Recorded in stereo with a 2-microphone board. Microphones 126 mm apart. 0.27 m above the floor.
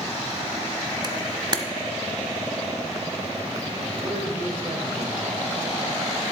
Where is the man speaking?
45° right (ahead or behind), 6 m.